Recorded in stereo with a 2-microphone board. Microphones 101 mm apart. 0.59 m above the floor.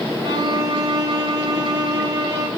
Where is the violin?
40° right (ahead or behind), 4 m.